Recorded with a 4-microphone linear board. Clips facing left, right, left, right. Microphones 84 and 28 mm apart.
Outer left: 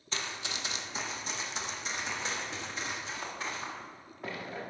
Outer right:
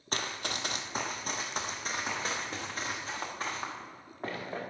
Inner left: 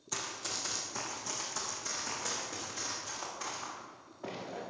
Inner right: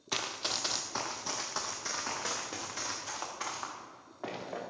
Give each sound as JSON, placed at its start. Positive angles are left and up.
{"t": 0.1, "sound": "running footsteps", "side_deg": -55, "distance_m": 0.8}